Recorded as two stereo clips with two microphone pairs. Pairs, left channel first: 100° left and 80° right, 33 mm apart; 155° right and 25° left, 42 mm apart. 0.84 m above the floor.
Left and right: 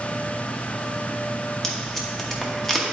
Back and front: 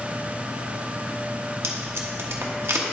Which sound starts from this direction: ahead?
Tape being pulled, at 1.6 s.